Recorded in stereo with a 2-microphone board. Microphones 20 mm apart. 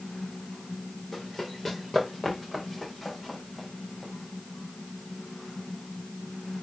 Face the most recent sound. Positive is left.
turn(degrees=0)  # may be behind; listen again after turning